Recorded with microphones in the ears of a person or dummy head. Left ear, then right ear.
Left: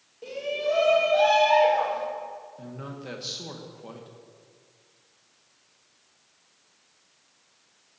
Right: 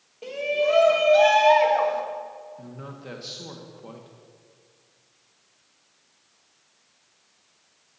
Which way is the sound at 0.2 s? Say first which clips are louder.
Right 5 dB; 45° right (ahead or behind).